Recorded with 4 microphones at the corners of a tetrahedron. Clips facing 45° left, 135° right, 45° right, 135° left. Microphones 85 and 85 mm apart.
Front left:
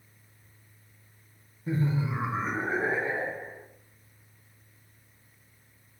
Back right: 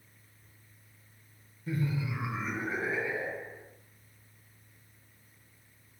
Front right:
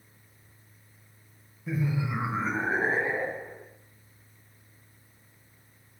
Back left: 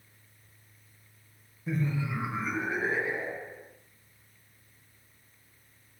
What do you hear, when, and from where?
1.7 s laughter: 45° left, 1.1 m; by 3.7 s 10° right, 3 m